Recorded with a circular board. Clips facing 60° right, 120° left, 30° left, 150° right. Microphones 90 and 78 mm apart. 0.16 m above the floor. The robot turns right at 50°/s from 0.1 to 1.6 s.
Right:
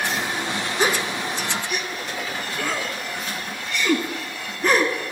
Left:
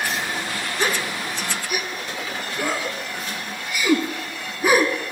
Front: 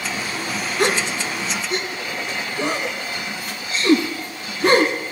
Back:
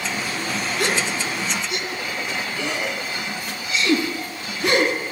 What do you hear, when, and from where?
0.8 s a gasp: straight ahead, 1.0 m; by 5.1 s 40° left, 1.0 m